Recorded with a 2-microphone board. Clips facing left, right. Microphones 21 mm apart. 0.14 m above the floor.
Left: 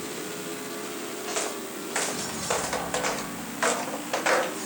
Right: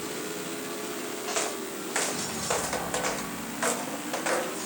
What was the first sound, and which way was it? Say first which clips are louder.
Footsteps: even; 5° right (ahead or behind).